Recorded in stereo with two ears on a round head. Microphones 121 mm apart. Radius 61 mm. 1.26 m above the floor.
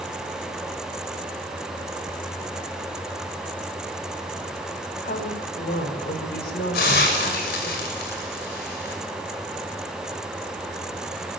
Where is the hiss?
85° left, 6.5 m.